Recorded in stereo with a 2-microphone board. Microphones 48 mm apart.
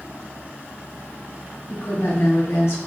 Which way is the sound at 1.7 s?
65° left (ahead or behind).